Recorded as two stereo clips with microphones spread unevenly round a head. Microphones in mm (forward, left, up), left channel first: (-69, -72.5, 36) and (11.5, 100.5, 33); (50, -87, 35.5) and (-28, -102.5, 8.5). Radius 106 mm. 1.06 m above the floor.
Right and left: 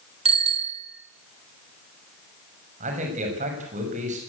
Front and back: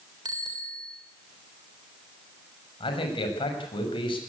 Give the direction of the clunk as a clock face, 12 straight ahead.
No clunk in this recording.